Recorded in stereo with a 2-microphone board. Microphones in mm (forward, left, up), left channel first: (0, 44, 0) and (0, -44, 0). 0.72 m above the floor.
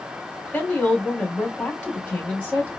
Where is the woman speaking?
15° left (ahead or behind), 2.5 m.